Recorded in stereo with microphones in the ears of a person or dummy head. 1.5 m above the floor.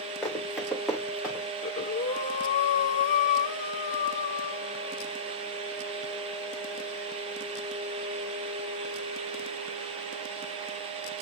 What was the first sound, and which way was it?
Running footsteps, 10° left (ahead or behind).